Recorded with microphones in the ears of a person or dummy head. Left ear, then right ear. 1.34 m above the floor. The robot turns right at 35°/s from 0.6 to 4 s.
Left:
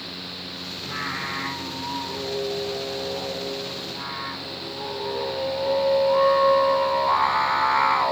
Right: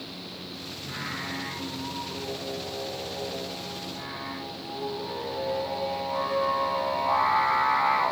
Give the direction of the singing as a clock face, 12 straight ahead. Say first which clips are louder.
Left 5 dB; 10 o'clock.